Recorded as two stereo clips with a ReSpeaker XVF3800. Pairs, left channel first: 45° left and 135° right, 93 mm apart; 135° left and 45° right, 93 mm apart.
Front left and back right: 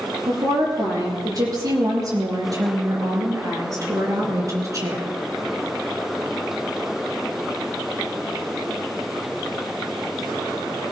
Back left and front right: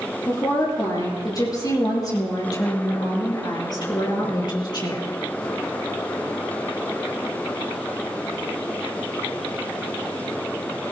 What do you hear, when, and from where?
0.3 s a woman speaking: straight behind, 6 m; by 5.1 s 170° left, 3.5 m